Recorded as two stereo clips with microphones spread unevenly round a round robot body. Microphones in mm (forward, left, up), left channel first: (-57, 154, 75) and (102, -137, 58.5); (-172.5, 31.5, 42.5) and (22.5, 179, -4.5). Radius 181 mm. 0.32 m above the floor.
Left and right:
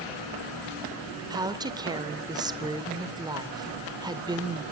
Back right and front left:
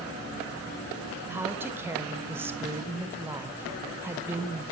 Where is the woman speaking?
5° right, 1.2 m.